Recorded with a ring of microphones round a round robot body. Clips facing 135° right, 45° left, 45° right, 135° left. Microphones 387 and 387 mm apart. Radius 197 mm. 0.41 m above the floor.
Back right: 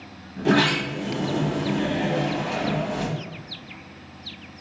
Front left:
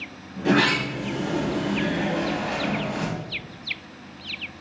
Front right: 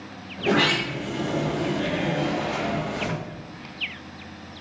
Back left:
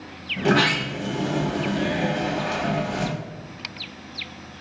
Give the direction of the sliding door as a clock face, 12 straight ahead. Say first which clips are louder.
Back right 1 dB, back left 2 dB; 7 o'clock.